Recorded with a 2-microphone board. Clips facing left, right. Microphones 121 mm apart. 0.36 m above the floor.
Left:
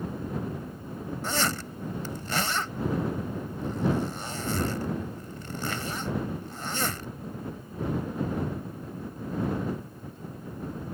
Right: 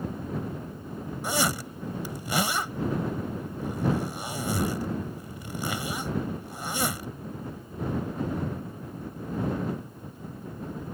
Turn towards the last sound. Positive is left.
turn(degrees=-10)  # may be behind; listen again after turning